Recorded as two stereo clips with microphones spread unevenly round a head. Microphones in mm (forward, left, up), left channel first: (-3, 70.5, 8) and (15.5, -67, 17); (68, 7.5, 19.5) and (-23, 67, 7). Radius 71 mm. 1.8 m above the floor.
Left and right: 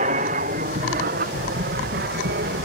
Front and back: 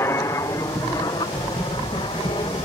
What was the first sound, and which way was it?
An aircraft, 100° right.